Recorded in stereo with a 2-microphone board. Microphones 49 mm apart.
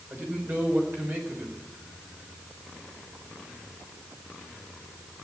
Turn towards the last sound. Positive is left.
turn(degrees=-40)  # may be behind; listen again after turning